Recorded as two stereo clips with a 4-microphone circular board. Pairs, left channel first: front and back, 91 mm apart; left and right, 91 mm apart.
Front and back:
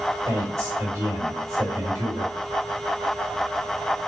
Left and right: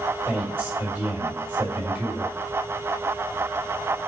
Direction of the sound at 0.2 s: 150° right.